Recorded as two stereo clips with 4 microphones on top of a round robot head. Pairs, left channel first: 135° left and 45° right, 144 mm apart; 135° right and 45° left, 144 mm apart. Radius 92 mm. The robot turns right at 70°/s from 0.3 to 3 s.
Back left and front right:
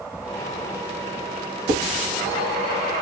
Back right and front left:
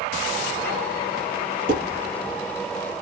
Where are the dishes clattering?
20° left, 2.5 m; by 1.8 s 30° left, 2.5 m.